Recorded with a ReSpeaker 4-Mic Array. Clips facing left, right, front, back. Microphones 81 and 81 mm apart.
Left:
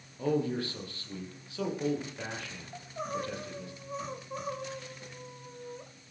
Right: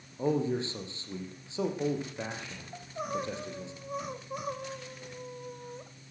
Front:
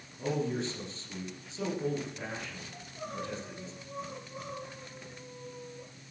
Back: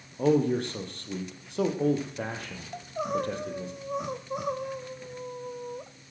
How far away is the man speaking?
About 4.5 m.